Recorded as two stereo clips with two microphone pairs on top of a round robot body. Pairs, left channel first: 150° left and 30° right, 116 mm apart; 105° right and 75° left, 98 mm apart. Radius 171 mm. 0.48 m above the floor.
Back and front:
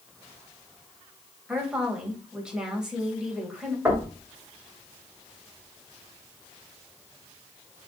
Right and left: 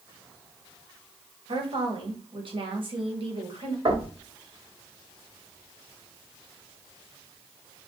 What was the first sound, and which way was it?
A woman speaking, 50° left.